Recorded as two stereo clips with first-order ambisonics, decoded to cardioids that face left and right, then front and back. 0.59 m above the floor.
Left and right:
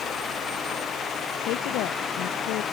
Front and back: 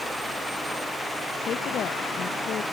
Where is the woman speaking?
60° left.